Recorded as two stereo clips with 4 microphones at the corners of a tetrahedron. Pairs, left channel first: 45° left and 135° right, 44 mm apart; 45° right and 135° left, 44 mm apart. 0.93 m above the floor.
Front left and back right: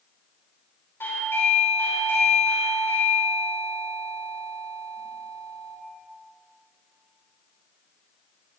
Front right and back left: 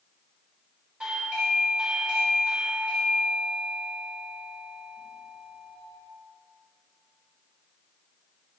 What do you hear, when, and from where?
1.0 s a doorbell: 65° left, 4 m